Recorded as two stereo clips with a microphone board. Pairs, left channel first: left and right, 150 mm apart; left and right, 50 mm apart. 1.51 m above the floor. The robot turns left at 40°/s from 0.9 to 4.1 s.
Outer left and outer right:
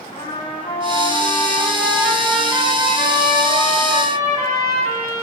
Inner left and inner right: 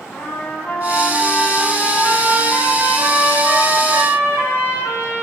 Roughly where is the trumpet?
Ahead left.